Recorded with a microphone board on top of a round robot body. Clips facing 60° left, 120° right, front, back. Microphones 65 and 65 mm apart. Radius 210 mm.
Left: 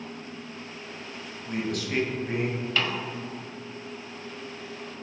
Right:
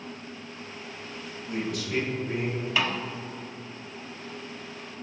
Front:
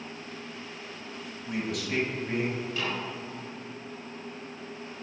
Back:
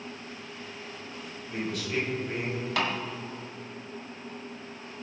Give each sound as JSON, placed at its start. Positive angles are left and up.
{"t": 1.5, "sound": "a man speaking", "azimuth_deg": 10, "distance_m": 3.5}
{"t": 2.8, "sound": "a snare drum", "azimuth_deg": 160, "distance_m": 1.3}